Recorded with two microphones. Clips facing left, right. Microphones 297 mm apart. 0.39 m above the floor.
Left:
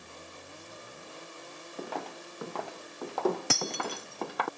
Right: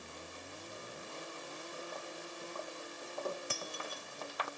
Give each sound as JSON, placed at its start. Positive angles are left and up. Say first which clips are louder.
{"t": 1.8, "sound": "footsteps", "louder": "left 11 dB", "side_deg": 85}
{"t": 3.5, "sound": "breaking glass", "louder": "left 10 dB", "side_deg": 85}